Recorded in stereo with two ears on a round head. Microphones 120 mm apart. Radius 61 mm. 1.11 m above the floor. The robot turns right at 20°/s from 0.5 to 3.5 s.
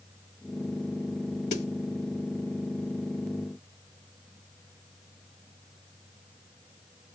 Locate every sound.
1.5 s a snare drum: 55° left (ahead or behind), 1.3 m; by 1.7 s 50° left (ahead or behind), 1.3 m